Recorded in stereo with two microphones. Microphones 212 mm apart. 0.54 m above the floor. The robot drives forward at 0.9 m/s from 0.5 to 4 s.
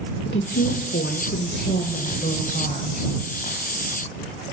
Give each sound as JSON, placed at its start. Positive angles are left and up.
{"t": 0.2, "sound": "a woman speaking", "side_deg": 65, "distance_m": 1.7}